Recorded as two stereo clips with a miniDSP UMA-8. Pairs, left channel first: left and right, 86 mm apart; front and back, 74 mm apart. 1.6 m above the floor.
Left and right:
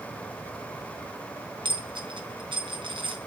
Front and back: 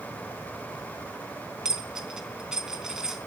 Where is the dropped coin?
100° right, 4 m.